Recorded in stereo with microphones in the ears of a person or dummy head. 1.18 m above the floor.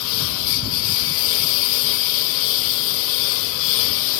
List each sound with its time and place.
0.0 s a lawn mower: 75° left (ahead or behind); by 4.2 s 70° left (ahead or behind)